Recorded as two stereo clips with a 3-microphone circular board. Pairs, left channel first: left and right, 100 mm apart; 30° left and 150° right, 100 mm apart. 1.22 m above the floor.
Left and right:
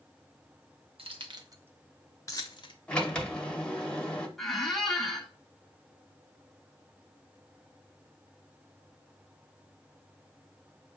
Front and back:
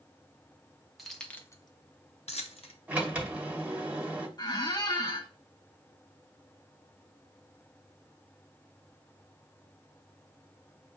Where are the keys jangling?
60° right, 0.8 m; by 2.8 s 50° left, 0.9 m.